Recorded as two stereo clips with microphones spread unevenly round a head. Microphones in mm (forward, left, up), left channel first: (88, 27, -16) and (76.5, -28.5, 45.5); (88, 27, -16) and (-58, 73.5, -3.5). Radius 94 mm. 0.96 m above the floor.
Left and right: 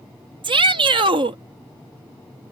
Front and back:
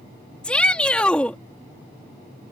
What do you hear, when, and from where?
0.4 s a shout: 100° right